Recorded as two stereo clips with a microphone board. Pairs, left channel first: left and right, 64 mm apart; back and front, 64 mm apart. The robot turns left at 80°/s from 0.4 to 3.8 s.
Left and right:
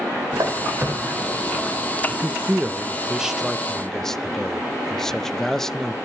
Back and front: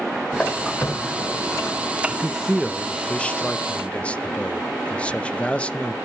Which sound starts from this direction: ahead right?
A man speaking, at 2.1 s.